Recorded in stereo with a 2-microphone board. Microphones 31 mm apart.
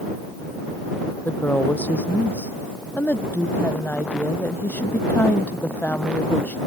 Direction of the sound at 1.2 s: 75° left (ahead or behind).